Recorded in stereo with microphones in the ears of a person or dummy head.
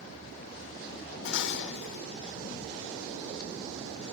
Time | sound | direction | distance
1.2 | dishes clattering | 75° left (ahead or behind) | 3 m